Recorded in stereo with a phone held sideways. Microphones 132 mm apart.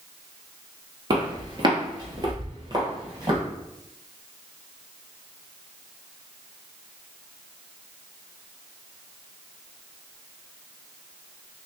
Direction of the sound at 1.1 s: 35° right (ahead or behind).